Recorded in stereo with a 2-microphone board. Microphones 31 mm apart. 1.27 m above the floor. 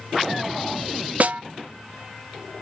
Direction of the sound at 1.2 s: 55° right (ahead or behind).